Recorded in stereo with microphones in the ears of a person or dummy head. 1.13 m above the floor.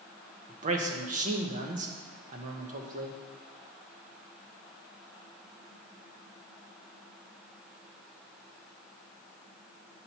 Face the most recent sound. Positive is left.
turn(degrees=-40)  # may be behind; listen again after turning